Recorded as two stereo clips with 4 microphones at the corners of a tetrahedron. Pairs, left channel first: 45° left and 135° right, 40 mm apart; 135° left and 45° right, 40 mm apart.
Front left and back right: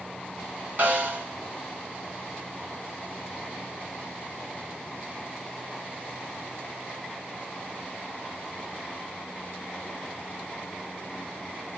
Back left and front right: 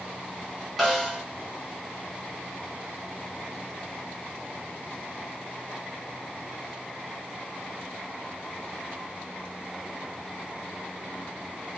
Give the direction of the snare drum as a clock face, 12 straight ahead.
5 o'clock.